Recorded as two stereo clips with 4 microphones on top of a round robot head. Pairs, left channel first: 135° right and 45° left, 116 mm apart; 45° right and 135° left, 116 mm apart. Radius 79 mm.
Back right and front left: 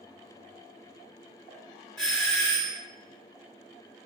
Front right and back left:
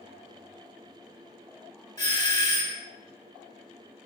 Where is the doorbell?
65° right, 1.8 m.